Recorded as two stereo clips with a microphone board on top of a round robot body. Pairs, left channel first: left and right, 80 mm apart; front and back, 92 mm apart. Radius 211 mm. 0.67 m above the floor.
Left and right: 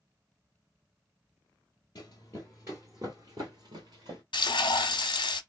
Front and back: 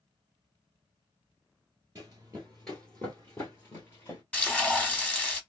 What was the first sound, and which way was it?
Running footsteps, 125° left.